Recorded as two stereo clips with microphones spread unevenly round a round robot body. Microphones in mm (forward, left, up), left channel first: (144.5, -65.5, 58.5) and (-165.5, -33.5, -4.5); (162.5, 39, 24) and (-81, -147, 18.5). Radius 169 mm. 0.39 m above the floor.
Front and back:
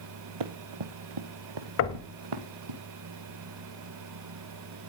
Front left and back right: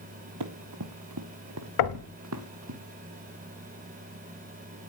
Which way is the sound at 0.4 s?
175° left.